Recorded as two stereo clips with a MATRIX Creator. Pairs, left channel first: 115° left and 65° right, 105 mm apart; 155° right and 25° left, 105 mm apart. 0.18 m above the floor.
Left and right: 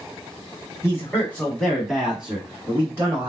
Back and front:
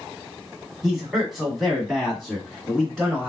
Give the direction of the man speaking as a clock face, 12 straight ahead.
8 o'clock.